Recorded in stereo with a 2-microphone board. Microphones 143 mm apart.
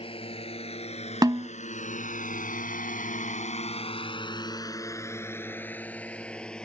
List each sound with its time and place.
0.0 s a drone: 40° left (ahead or behind); by 6.7 s 5° left (ahead or behind)
1.2 s a snare drum: 30° right (ahead or behind)